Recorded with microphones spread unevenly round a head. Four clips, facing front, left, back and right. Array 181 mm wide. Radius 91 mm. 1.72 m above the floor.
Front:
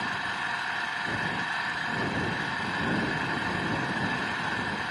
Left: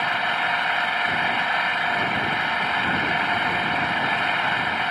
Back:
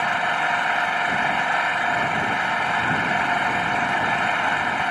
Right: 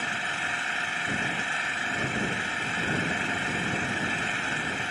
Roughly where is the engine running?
Behind.